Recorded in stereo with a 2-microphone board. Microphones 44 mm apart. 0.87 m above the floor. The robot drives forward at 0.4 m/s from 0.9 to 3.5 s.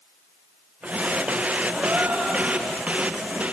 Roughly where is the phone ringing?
I don't hear a phone ringing.